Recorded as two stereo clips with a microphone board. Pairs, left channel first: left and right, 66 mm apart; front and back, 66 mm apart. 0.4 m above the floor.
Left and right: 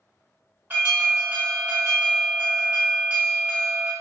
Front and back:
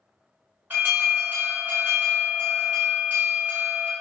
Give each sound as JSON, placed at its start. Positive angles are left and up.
{"t": 0.7, "sound": "an alarm", "azimuth_deg": -135, "distance_m": 1.3}